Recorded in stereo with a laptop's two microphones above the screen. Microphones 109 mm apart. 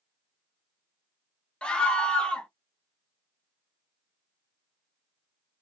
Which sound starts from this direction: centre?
A scream, at 1.6 s.